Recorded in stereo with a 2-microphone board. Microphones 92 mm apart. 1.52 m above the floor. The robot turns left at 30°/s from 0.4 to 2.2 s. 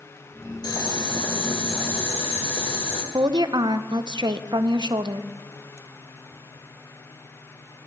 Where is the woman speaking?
55° right (ahead or behind), 0.7 m.